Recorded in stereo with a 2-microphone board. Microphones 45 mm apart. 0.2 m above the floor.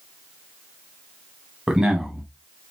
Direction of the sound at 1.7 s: 10° right (ahead or behind).